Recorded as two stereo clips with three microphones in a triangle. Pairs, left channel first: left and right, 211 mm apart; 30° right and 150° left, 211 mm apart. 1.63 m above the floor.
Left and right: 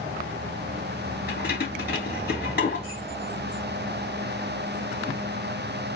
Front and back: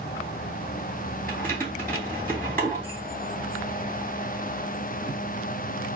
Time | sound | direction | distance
1.3 | keys jangling | 50° left | 3 m